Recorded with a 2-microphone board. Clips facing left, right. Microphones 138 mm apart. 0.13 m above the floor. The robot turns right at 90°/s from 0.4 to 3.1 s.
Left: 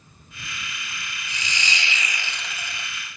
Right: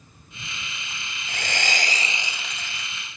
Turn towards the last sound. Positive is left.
turn(degrees=55)